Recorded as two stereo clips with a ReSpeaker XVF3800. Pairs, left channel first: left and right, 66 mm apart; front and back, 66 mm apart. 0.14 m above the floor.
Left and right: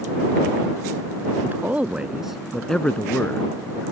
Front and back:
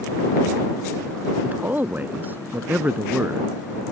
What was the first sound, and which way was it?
A man speaking, 130° right.